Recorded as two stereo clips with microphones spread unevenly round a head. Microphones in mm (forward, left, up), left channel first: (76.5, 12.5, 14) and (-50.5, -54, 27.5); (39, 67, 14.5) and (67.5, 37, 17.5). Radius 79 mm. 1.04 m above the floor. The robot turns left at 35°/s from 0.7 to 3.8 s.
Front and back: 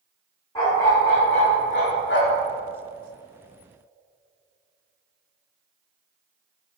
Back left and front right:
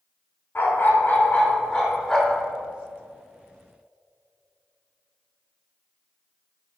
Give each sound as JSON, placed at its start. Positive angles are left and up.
{"t": 0.6, "sound": "a dog barking", "azimuth_deg": 100, "distance_m": 1.9}